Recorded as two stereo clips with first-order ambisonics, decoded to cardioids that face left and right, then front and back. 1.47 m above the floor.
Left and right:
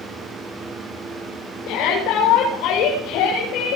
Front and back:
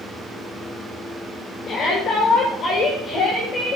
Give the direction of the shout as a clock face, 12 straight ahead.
10 o'clock.